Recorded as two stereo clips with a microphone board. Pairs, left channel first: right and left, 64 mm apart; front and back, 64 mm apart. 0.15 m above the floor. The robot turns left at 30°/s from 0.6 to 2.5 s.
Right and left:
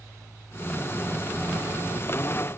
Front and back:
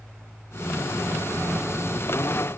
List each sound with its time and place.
Only background noise.